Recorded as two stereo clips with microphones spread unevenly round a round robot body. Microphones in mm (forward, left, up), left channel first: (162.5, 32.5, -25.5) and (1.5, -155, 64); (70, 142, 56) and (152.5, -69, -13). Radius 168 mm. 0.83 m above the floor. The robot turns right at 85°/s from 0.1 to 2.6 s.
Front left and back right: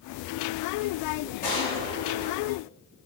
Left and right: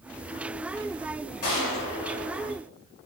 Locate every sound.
1.4 s a gunshot: 120° left, 1.7 m; by 2.5 s 145° right, 1.7 m